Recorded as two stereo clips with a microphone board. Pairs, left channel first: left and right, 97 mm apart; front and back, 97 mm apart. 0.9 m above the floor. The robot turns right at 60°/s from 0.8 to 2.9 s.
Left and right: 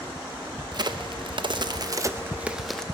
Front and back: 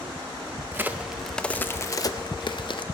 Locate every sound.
0.7 s a crack: 115° right, 0.6 m; by 2.9 s 10° left, 0.6 m